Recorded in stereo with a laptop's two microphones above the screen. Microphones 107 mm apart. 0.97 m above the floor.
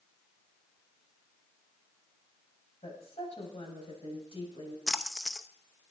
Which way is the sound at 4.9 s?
5° left (ahead or behind).